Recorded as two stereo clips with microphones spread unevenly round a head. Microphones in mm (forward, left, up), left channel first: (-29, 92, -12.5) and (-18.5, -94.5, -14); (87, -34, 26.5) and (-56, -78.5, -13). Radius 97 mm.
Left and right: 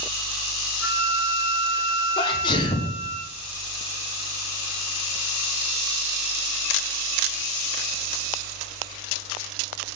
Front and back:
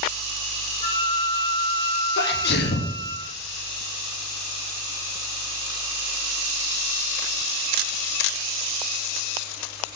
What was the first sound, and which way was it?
A flute, 75° left.